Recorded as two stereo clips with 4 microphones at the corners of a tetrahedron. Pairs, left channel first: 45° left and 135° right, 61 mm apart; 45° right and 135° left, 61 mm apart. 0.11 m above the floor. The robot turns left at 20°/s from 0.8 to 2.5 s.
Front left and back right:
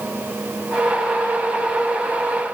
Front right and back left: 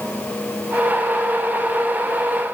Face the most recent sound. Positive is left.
No sound to turn to.